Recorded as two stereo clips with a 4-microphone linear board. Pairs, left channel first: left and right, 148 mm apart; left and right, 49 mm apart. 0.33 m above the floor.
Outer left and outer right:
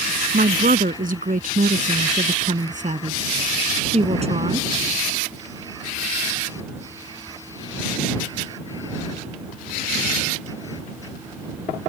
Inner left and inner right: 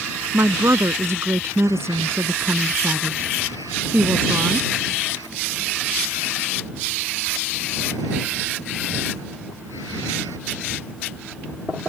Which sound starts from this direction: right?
A woman speaking, at 0.3 s.